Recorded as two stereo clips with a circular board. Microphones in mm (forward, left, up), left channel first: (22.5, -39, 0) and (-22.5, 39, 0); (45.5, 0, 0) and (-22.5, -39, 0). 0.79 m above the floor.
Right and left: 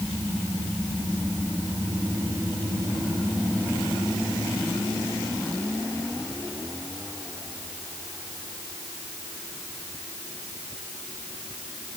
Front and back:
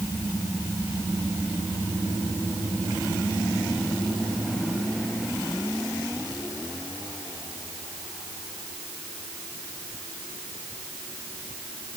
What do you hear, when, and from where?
Only background noise.